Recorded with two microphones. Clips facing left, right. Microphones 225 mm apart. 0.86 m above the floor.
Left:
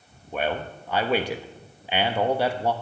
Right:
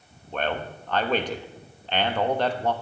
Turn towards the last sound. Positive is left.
turn(degrees=10)  # may be behind; listen again after turning